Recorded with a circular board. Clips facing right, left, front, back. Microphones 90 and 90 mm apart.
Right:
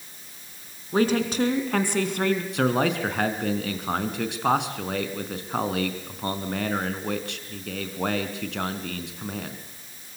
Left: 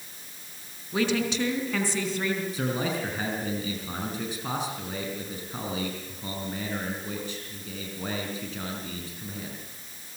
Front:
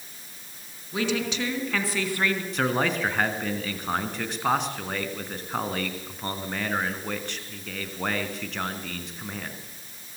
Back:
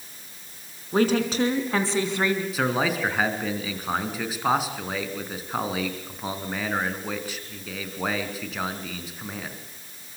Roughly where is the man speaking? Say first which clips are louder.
Right 6 dB, back 1 dB; right.